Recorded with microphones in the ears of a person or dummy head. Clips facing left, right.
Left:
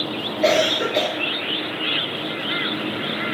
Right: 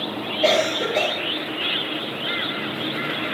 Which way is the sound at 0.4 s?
10° left (ahead or behind).